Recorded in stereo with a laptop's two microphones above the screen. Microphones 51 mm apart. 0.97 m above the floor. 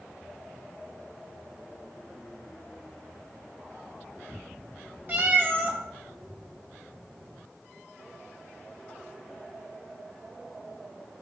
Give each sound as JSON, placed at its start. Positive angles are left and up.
{"t": 5.1, "sound": "a cat meowing", "side_deg": -40, "distance_m": 1.2}